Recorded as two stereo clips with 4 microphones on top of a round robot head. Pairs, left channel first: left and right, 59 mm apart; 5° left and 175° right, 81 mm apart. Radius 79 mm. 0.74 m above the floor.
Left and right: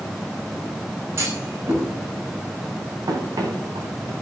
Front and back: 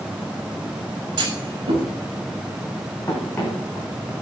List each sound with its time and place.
1.2 s a clunk: 140° right, 5 m
3.1 s running footsteps: 65° right, 5 m; by 4.1 s 75° right, 5.5 m